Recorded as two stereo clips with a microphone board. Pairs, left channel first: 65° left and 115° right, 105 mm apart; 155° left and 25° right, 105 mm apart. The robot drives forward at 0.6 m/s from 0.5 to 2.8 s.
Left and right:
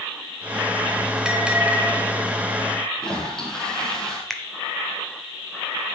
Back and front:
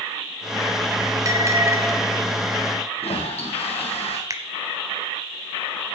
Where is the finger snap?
15° right, 1.0 m.